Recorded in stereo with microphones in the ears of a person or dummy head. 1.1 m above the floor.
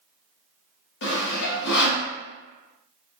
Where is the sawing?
65° left (ahead or behind), 1.0 m.